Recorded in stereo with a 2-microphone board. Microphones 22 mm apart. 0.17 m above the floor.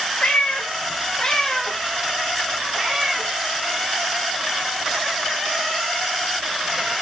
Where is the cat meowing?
75° left (ahead or behind), 1.2 m; by 6.9 s 45° right (ahead or behind), 4.5 m.